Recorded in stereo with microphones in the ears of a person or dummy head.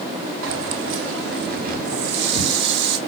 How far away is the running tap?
About 3 m.